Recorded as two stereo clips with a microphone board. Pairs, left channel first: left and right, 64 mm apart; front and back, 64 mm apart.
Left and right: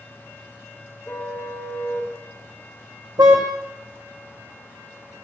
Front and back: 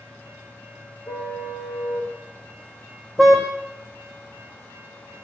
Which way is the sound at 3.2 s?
90° right.